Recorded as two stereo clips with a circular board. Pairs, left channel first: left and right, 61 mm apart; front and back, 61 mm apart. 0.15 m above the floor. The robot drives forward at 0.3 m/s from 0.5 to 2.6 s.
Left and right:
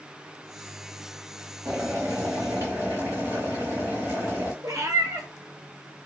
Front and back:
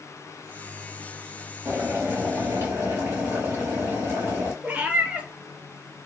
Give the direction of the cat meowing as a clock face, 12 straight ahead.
4 o'clock.